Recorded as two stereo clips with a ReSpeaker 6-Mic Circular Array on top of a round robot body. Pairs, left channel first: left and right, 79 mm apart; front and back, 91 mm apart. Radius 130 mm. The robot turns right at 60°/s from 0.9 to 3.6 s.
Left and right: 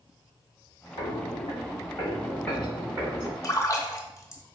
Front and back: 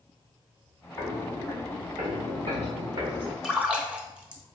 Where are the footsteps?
70° left, 1.4 m; by 3.3 s 135° right, 2.5 m.